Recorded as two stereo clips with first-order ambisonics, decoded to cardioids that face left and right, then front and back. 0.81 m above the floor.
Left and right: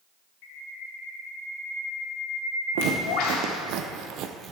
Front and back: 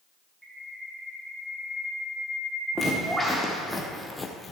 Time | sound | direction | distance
0.4 | a bird | 95° left | 2 m
2.8 | footsteps | 100° right | 3 m